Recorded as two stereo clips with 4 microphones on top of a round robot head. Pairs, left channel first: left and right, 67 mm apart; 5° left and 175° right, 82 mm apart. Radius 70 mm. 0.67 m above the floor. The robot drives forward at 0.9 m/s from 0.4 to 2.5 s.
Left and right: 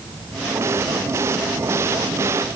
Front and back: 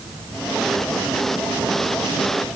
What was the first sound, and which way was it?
Only background noise.